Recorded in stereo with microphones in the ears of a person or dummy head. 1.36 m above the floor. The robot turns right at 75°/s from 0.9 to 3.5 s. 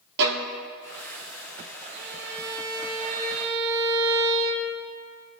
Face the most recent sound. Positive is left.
turn(degrees=-25)